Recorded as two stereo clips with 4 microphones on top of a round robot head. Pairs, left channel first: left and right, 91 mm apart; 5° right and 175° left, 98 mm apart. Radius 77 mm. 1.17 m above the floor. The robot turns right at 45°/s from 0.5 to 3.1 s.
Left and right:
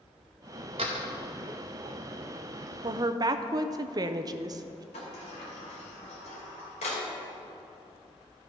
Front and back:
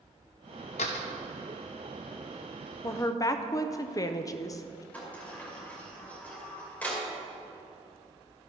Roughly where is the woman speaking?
Ahead right.